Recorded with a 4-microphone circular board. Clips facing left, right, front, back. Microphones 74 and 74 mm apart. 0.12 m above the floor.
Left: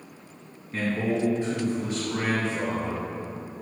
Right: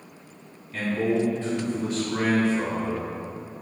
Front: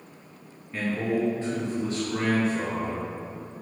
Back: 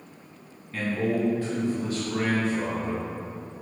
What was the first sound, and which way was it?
A man speaking, 70° left.